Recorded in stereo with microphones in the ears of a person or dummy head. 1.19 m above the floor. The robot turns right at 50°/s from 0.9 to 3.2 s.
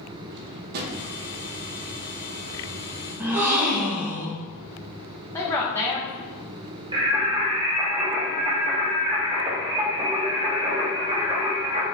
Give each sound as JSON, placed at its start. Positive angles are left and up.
{"t": 0.3, "sound": "a drawer", "side_deg": -55, "distance_m": 0.6}
{"t": 3.2, "sound": "a gasp", "side_deg": -15, "distance_m": 0.8}
{"t": 5.3, "sound": "a woman speaking", "side_deg": 15, "distance_m": 0.9}
{"t": 6.9, "sound": "singing", "side_deg": -25, "distance_m": 0.9}